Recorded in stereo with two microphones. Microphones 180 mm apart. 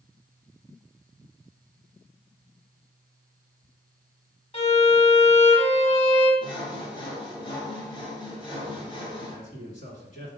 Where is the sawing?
25° left (ahead or behind), 1.4 m.